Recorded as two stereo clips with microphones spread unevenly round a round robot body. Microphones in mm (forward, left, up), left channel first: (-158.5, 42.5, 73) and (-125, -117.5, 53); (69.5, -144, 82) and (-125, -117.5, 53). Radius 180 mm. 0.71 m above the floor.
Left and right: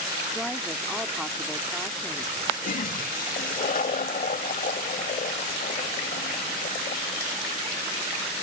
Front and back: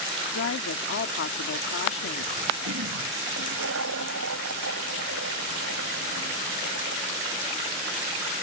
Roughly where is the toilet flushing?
Behind left.